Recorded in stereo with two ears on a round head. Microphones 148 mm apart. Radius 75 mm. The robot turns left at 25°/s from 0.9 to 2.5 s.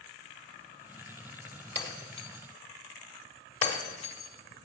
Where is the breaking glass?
20° left (ahead or behind), 1.2 m; by 4.7 s 35° left (ahead or behind), 1.2 m.